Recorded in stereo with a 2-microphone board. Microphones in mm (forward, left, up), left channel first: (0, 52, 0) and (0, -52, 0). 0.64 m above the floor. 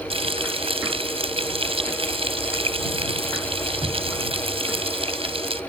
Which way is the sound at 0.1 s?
65° right (ahead or behind).